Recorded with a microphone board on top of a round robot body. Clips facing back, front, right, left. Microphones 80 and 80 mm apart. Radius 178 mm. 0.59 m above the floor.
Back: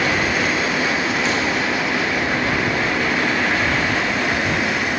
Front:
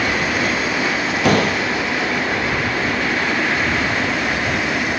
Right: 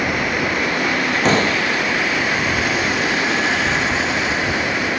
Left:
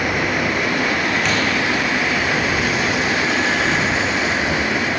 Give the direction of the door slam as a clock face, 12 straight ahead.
1 o'clock.